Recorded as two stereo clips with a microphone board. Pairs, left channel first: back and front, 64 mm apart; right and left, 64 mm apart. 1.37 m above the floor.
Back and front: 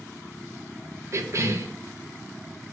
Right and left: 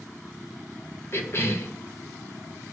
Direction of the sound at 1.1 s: 40° right.